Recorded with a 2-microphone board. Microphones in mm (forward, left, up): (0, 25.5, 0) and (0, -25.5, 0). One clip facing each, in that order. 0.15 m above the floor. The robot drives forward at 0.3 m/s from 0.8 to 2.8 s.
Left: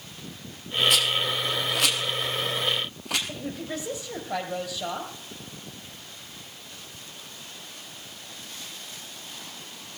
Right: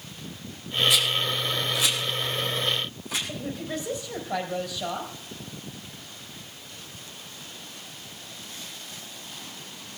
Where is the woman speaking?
10° left (ahead or behind), 4 m.